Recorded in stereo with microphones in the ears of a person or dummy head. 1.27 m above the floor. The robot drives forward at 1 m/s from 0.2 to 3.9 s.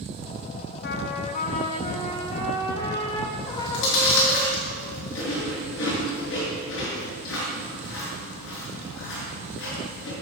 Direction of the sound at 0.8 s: 60° left (ahead or behind).